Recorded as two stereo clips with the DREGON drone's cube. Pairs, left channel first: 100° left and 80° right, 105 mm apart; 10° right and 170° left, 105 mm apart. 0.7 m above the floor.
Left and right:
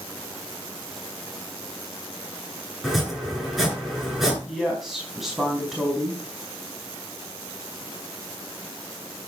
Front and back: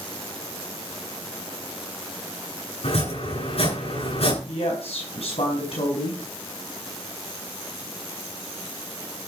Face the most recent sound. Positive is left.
turn(degrees=10)